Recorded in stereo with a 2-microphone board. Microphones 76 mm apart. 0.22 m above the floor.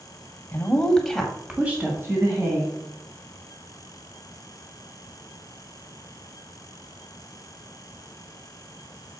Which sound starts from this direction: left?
A woman speaking, at 0.5 s.